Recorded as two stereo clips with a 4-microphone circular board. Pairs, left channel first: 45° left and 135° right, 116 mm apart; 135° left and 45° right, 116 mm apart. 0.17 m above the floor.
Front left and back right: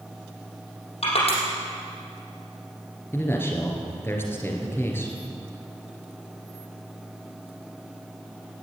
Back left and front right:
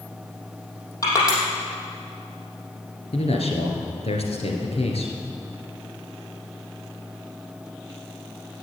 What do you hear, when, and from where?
1.0 s crushing: 75° left, 5 m
3.1 s a man speaking: 115° left, 3 m